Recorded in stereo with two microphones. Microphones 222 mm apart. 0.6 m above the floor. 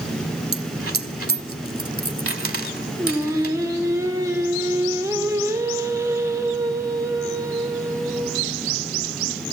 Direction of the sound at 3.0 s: 15° right (ahead or behind).